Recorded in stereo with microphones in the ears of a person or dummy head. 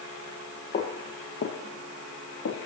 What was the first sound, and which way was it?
Footsteps, 40° left (ahead or behind).